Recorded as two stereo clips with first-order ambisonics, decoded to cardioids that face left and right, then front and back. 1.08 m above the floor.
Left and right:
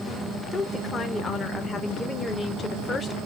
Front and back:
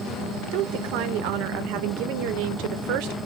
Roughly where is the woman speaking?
Behind.